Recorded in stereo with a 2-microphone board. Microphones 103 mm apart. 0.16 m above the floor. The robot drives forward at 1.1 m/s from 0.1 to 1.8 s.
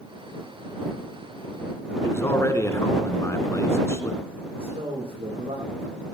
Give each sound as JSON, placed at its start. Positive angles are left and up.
{"t": 2.0, "sound": "a man speaking", "side_deg": 25, "distance_m": 1.8}
{"t": 4.6, "sound": "a man speaking", "side_deg": -65, "distance_m": 9.5}